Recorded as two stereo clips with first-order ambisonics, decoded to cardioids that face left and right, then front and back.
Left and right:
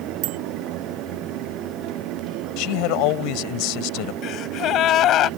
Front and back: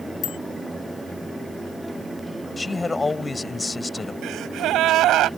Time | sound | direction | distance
0.2 | a bicycle bell | 60° right | ?
2.6 | a man speaking | 80° left | ?
4.2 | a gasp | 135° left | ?